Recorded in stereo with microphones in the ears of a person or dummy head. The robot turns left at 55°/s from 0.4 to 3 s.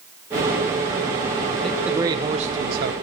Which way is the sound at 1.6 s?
Straight ahead.